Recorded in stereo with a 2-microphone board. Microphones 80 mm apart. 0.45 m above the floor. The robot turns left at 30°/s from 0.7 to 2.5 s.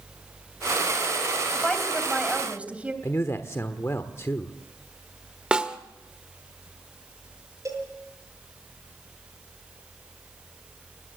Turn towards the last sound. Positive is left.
turn(degrees=-40)  # may be behind; listen again after turning